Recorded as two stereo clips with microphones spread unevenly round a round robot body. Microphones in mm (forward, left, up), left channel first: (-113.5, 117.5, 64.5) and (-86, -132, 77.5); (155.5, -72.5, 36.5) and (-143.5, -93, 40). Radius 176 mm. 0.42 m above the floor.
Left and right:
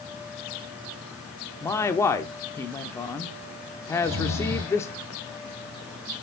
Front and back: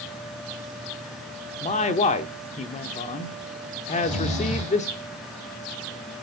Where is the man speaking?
35° left, 0.8 m.